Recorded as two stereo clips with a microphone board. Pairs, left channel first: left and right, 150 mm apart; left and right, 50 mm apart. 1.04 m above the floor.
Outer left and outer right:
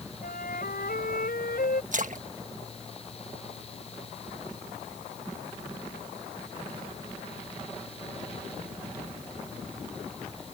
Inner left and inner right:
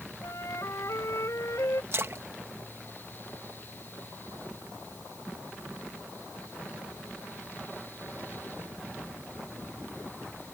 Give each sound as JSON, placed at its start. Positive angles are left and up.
{"t": 0.2, "sound": "a flute", "side_deg": 85}
{"t": 1.9, "sound": "a splash", "side_deg": -60}